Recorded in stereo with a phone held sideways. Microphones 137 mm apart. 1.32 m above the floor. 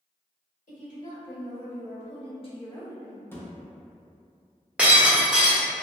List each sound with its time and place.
0.7 s a woman speaking: 75° left (ahead or behind), 1.4 m; by 3.2 s centre (ahead or behind), 0.6 m
3.3 s a thud: 15° left (ahead or behind), 0.6 m
4.8 s breaking glass: 5° right (ahead or behind), 1.1 m